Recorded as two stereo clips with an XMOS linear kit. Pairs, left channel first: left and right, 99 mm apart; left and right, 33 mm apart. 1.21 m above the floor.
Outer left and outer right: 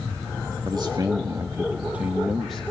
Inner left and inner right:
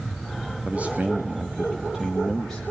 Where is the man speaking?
50° right (ahead or behind), 2.0 m; by 2.6 s 5° left (ahead or behind), 1.8 m.